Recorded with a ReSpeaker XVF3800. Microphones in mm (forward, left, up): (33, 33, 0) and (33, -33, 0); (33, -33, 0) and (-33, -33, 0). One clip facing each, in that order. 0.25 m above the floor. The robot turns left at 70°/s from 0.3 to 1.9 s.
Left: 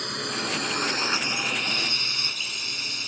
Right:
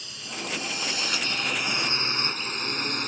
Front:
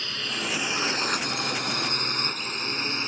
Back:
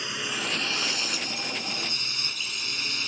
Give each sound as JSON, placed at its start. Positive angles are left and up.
{"t": 0.0, "sound": "a drone", "azimuth_deg": 105}